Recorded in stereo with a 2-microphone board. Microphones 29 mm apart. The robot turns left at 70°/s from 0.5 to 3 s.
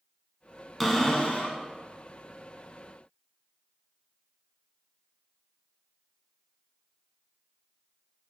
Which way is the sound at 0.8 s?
175° left.